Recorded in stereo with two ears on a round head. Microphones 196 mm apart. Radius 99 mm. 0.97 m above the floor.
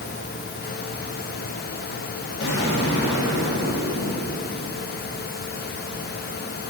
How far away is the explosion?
About 1.9 m.